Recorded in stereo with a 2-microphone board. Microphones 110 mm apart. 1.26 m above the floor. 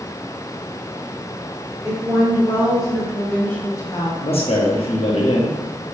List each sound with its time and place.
1.8 s a woman speaking: 25° right (ahead or behind), 1.4 m; by 4.1 s 40° left (ahead or behind), 0.9 m
4.2 s a man speaking: 60° left (ahead or behind), 0.9 m